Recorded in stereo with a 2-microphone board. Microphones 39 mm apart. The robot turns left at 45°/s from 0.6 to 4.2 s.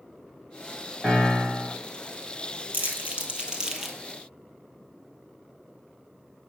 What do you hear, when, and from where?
1.0 s a piano: 10° left, 3 m; by 1.8 s 25° right, 3 m
2.7 s crumpling: 55° right (ahead or behind), 1.2 m; by 4.0 s centre (ahead or behind), 1.2 m